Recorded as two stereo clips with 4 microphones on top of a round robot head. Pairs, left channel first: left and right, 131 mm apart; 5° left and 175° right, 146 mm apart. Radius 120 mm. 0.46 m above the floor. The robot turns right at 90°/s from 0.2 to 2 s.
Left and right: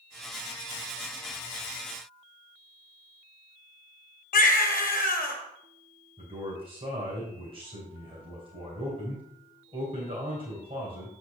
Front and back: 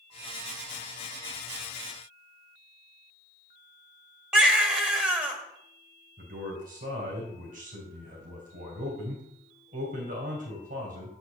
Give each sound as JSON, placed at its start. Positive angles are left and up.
{"t": 4.3, "sound": "a baby crying", "azimuth_deg": 105, "distance_m": 1.4}
{"t": 6.2, "sound": "a man speaking", "azimuth_deg": -140, "distance_m": 2.5}